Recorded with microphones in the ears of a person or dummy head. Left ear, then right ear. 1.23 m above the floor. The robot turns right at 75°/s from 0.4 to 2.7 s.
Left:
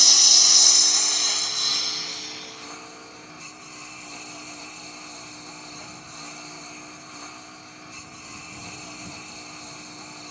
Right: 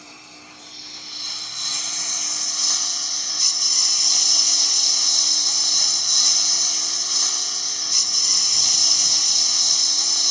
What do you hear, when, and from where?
0.0 s a lawn mower: 90° left; by 10.3 s 95° right